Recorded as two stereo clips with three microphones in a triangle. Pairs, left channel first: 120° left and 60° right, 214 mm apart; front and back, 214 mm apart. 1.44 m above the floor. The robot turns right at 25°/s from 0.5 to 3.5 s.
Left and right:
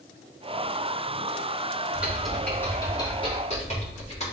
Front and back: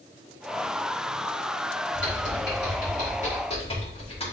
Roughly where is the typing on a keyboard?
Ahead left.